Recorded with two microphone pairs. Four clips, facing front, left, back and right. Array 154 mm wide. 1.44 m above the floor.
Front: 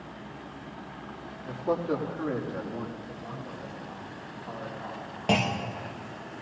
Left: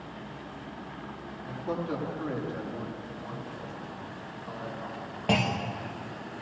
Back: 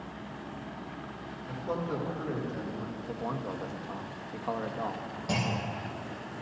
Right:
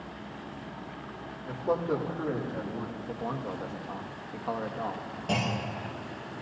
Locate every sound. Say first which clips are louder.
1.4 s a man speaking: right 4 dB, front 6 dB; 25° right, 3 m; by 2.9 s 10° right, 2 m
3.0 s a man speaking: right 5 dB, back 4 dB; 130° right, 1.3 m
5.3 s a clunk: left 3 dB, front 6 dB; 20° left, 1.0 m